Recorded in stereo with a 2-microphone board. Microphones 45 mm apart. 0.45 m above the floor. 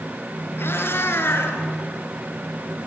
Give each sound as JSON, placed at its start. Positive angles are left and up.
{"t": 0.6, "sound": "a cat meowing", "side_deg": 60, "distance_m": 4.0}